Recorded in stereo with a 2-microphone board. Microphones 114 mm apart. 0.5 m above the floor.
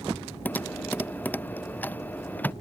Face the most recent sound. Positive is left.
turn(degrees=15)  # may be behind; listen again after turning